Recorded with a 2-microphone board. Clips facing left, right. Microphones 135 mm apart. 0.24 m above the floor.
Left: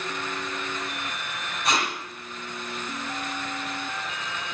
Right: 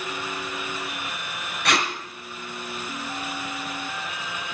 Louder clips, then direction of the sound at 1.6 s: Right 2 dB; 70° right (ahead or behind).